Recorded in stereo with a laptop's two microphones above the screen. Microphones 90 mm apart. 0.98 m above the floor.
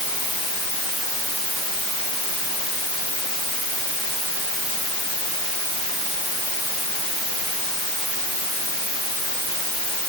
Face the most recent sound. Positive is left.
No sound to turn to.